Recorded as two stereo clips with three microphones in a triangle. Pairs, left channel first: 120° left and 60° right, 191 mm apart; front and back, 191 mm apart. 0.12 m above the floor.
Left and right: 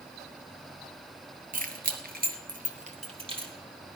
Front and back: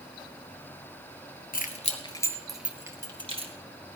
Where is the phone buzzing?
I don't hear a phone buzzing.